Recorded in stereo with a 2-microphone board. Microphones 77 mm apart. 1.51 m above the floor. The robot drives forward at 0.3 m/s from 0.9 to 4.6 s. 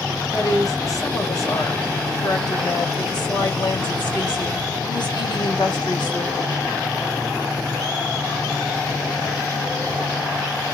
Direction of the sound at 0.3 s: 50° left (ahead or behind).